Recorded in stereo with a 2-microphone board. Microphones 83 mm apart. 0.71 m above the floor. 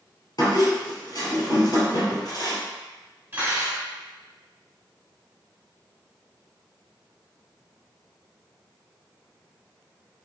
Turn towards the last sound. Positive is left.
turn(degrees=-30)  # may be behind; listen again after turning